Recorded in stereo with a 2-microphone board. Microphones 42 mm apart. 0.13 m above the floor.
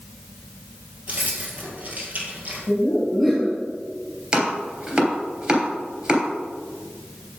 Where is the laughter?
Centre (ahead or behind), 2.5 m.